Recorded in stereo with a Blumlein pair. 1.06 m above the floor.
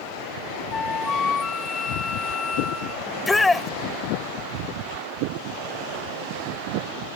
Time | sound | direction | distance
0.7 | a flute | 15° left | ?
3.1 | a shout | 10° left | ?